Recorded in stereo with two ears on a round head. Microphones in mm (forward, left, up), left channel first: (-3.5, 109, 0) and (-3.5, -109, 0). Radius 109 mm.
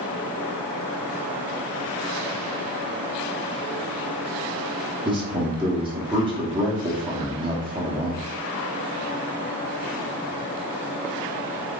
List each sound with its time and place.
5.0 s a man speaking: 20° right (ahead or behind), 0.6 m